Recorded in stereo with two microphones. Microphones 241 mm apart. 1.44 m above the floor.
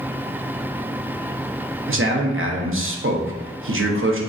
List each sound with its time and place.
1.9 s a man speaking: 60° right (ahead or behind), 0.7 m